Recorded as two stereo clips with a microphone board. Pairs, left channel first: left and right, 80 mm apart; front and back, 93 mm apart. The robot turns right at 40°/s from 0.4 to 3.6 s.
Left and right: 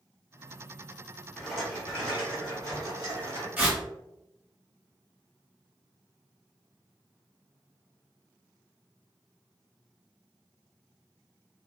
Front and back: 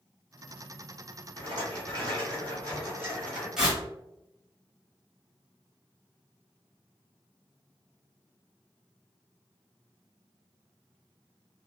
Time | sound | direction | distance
1.4 | a rattle | 170° left | 1.6 m
3.6 | tearing paper | 105° right | 1.1 m